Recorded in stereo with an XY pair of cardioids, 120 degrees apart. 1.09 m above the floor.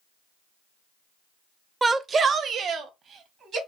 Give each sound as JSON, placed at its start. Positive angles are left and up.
{"t": 1.8, "sound": "a shout", "azimuth_deg": -20, "distance_m": 0.6}